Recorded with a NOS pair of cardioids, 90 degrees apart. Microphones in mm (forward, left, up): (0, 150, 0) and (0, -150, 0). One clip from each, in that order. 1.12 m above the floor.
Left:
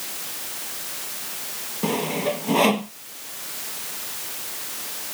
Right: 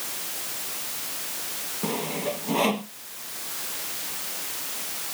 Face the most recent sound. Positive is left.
turn(degrees=30)